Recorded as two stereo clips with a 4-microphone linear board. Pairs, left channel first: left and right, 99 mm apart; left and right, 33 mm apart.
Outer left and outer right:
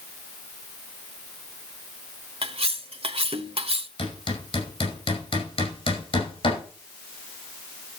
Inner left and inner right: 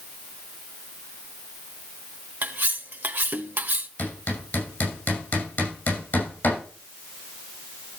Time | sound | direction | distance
2.4 | cutlery clinking | 75° right (ahead or behind) | 0.9 m
4.0 | hammering | 65° left (ahead or behind) | 5.5 m